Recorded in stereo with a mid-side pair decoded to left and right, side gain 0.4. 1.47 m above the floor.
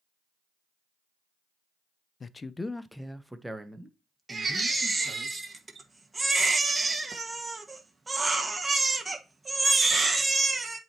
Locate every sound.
2.2 s a man speaking: 45° left, 0.6 m; by 5.3 s 25° right, 2 m
4.3 s a baby crying: 25° right, 1.5 m